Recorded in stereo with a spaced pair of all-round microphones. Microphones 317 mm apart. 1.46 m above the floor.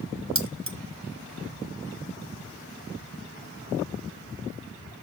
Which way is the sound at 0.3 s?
45° right (ahead or behind).